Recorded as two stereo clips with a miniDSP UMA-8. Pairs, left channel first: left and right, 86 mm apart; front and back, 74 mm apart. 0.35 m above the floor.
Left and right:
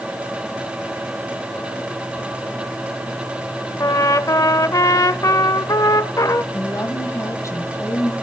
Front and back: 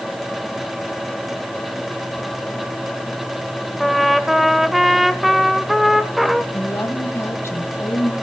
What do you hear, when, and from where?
3.8 s a trumpet: 90° left, 0.6 m
6.5 s a woman speaking: 45° left, 1.7 m